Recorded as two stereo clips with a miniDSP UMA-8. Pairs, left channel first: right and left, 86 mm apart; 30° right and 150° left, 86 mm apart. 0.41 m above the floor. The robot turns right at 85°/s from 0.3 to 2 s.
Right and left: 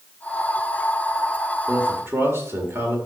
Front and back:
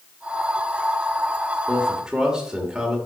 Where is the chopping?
I don't hear chopping.